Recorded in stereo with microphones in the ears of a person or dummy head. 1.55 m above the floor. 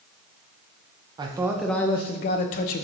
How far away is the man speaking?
About 0.6 m.